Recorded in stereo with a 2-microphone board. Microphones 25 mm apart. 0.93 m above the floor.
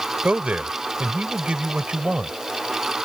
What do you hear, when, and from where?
0.2 s a man speaking: 75° right (ahead or behind); by 2.4 s 50° right (ahead or behind)